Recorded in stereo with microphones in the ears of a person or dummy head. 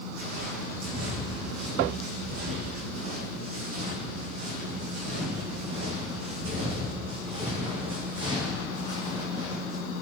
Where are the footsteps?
70° right (ahead or behind), 5.5 m; by 9.8 s 20° right (ahead or behind), 7 m.